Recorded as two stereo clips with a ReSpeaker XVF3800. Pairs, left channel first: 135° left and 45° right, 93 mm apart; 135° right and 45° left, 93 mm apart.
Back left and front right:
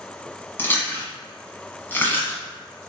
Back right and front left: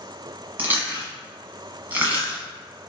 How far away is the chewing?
About 1.3 m.